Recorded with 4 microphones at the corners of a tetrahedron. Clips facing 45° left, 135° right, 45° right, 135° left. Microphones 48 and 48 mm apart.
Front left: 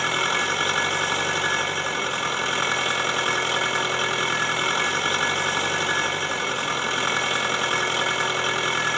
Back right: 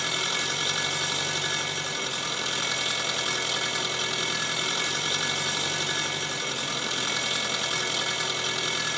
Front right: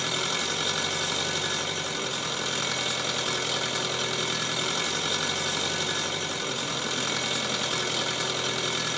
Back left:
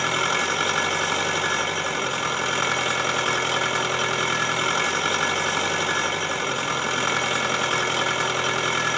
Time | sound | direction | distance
0.0 | an engine running | 90° left | 1.1 m